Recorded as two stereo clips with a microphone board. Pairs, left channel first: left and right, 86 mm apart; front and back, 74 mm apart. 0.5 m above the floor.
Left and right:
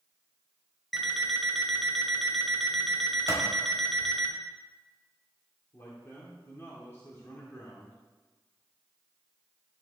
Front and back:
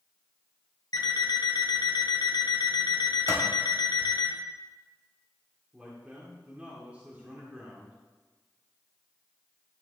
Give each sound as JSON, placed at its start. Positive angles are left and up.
{"t": 0.9, "sound": "an alarm clock", "azimuth_deg": 0, "distance_m": 1.5}
{"t": 3.3, "sound": "a clap", "azimuth_deg": 140, "distance_m": 2.0}
{"t": 5.7, "sound": "a man speaking", "azimuth_deg": 120, "distance_m": 1.5}